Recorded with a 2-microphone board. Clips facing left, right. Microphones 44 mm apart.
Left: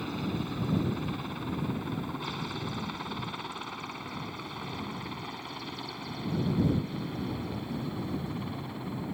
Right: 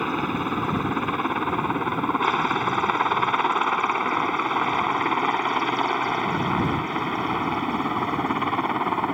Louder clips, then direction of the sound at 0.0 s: Right 9 dB; 45° right (ahead or behind).